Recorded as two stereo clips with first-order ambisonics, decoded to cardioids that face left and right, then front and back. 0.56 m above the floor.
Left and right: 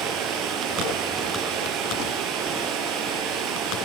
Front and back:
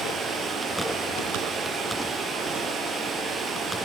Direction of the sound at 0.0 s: 120° right.